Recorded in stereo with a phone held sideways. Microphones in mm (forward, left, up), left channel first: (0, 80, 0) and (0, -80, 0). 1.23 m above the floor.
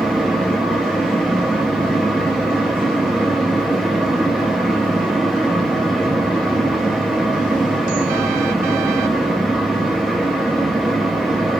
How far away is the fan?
About 0.8 m.